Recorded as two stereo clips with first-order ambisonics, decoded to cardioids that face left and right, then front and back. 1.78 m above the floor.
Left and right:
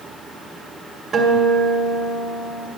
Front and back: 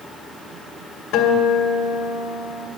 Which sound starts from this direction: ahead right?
A guitar, at 1.1 s.